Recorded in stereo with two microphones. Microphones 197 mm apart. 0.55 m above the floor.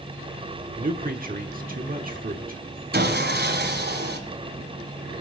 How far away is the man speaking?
About 1.2 m.